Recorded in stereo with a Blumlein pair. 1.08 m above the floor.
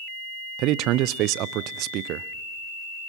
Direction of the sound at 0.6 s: 40° right.